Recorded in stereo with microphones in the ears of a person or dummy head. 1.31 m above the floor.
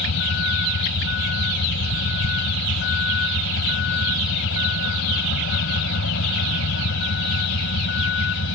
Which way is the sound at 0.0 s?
65° left (ahead or behind).